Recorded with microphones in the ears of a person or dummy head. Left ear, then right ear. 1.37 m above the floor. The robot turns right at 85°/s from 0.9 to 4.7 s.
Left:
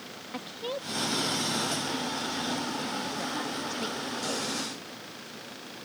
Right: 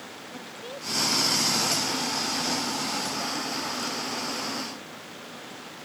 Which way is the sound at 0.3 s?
145° left.